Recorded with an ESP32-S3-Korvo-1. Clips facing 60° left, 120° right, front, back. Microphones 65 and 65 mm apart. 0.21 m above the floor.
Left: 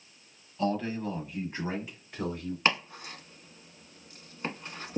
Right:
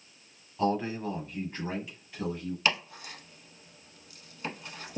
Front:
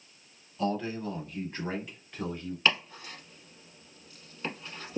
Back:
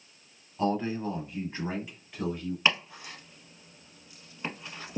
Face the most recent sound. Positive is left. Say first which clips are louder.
# left 2 dB, even
turn(degrees=110)